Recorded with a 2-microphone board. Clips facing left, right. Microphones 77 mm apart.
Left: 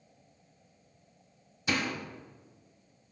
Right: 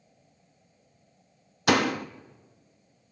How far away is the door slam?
About 0.9 m.